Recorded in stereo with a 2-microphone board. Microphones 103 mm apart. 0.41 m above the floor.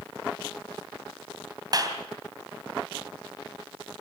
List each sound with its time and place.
1.7 s a clap: 40° right (ahead or behind), 3 m